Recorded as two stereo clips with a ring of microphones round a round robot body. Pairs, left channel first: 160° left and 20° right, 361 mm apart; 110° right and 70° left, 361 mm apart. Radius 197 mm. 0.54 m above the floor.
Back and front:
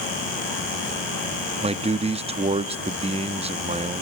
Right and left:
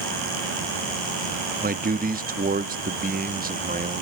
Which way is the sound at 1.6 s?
30° left.